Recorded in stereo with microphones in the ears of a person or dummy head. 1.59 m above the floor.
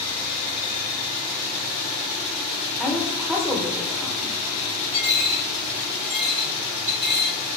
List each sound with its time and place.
2.8 s a woman speaking: centre (ahead or behind), 0.6 m
4.9 s a dropped coin: 35° right (ahead or behind), 2.0 m